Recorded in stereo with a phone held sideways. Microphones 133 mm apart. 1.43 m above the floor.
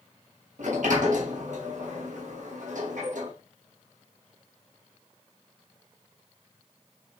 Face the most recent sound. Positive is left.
turn(degrees=-70)  # may be behind; listen again after turning